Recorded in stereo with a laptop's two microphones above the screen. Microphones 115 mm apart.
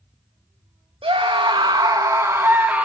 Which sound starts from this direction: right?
A scream, at 1.0 s.